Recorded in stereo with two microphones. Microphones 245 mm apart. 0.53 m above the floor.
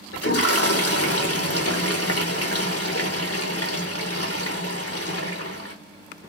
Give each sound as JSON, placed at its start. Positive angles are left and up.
{"t": 0.1, "sound": "a toilet flushing", "side_deg": 70, "distance_m": 0.7}